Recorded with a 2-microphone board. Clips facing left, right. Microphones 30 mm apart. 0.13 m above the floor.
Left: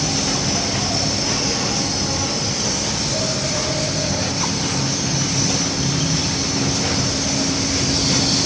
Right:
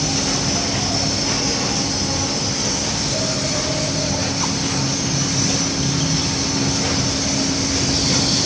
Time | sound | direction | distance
0.0 | an insect | 5° left (ahead or behind) | ?